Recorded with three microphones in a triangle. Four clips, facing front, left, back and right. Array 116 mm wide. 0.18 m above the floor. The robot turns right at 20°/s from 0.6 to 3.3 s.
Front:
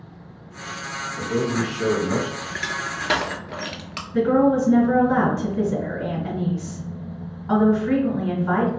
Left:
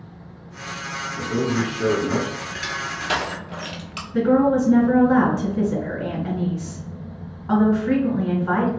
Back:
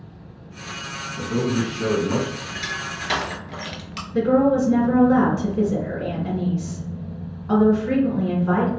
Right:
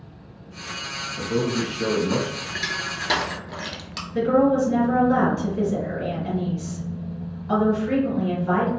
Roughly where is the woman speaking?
Ahead left.